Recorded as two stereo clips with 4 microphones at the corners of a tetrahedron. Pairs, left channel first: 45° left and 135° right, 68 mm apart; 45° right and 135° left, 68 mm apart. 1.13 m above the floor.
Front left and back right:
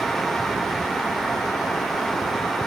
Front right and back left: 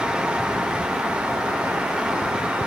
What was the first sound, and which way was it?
Only background noise.